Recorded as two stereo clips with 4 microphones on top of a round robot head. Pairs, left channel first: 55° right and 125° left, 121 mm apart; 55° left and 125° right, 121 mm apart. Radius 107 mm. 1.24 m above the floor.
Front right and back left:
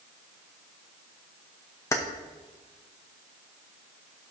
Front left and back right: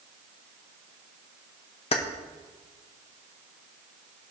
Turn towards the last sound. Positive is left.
turn(degrees=15)